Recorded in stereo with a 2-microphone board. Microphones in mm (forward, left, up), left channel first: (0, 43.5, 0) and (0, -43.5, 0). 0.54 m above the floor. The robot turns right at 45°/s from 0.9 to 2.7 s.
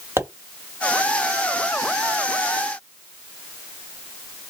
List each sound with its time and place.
0.2 s a pop: 30° right (ahead or behind), 1.7 m